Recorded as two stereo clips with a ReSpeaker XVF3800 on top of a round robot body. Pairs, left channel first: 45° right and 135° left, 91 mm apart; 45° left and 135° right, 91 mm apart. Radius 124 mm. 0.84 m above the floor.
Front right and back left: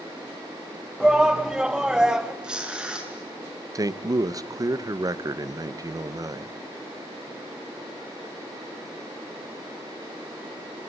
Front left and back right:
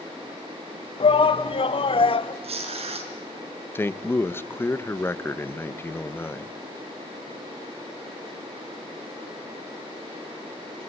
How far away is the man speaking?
About 1.3 m.